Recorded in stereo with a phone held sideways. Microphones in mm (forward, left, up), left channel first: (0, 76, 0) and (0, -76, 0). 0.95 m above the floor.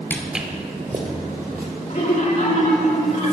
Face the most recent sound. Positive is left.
turn(degrees=55)  # may be behind; listen again after turning